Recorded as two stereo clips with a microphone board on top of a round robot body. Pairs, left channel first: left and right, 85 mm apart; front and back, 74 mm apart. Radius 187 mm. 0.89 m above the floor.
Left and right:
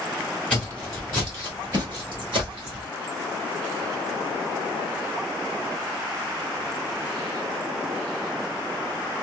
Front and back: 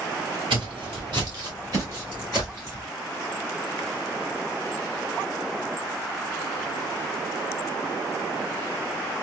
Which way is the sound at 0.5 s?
170° left.